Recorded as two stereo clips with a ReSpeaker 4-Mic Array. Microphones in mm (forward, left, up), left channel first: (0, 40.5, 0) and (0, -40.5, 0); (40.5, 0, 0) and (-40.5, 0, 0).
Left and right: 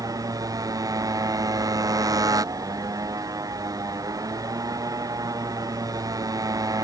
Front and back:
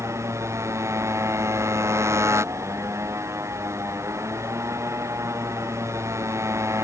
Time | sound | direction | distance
0.0 | a motorcycle | 130° right | ?